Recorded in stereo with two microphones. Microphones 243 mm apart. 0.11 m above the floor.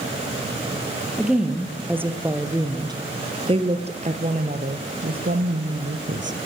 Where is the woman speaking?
Centre (ahead or behind), 3.5 m; by 6.4 s 50° right (ahead or behind), 3 m.